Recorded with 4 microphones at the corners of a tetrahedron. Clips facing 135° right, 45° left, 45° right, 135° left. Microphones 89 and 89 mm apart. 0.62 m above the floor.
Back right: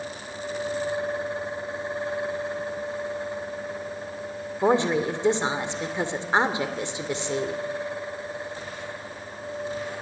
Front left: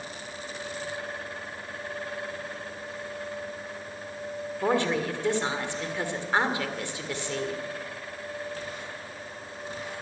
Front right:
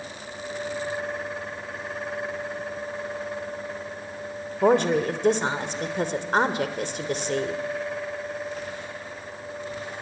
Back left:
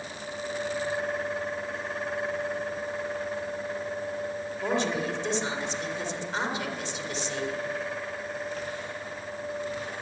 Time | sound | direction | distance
4.6 | a woman speaking | 70° right | 2 m